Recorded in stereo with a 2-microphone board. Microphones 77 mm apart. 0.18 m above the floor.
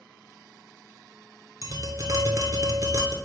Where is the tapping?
45° right (ahead or behind), 0.6 m.